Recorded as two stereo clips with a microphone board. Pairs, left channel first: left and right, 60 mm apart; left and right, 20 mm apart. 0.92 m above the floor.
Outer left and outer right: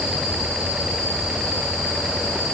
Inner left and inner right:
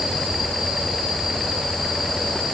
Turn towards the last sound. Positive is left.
No sound to turn to.